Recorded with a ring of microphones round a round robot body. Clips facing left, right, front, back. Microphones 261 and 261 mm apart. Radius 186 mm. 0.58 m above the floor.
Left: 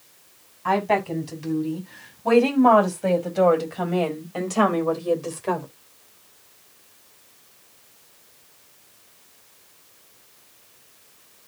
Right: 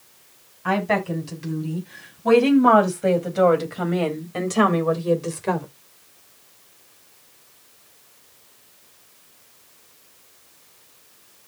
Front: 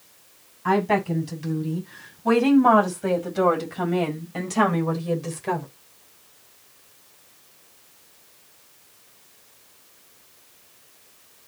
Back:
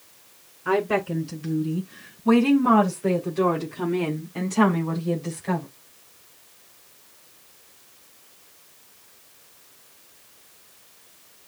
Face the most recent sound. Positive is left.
turn(degrees=-30)